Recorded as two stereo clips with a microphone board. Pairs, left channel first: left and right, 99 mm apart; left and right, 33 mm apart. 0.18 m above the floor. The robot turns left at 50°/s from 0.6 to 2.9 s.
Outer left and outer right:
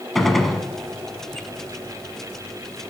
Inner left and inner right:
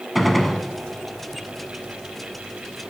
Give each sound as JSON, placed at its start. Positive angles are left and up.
{"t": 0.1, "sound": "a gunshot", "side_deg": 0, "distance_m": 0.9}